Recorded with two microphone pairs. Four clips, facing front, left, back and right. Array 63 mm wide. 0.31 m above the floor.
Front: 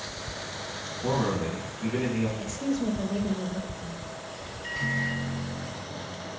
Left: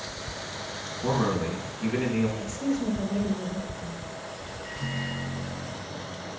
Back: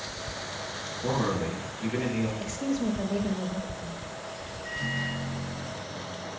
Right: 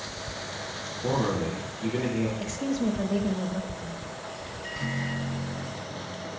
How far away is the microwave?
About 2.5 m.